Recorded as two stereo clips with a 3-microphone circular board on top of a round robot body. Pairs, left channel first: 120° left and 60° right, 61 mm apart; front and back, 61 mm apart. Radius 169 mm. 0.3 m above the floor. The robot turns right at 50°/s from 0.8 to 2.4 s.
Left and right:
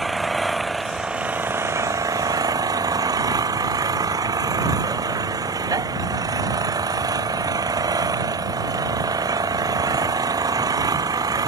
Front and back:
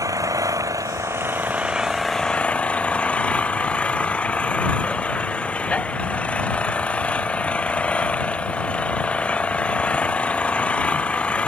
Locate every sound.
0.0 s an engine running: 150° right; by 11.5 s 70° right